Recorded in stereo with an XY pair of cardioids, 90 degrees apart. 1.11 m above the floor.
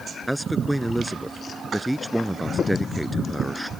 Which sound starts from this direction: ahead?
A man speaking, at 0.3 s.